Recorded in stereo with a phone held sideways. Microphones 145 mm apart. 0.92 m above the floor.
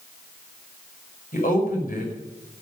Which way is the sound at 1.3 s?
70° left (ahead or behind).